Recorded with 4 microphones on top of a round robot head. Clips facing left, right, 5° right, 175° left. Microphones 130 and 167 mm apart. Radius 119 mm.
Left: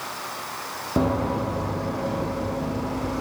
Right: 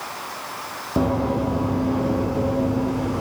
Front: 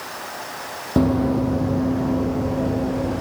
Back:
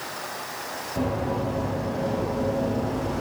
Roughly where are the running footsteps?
Ahead.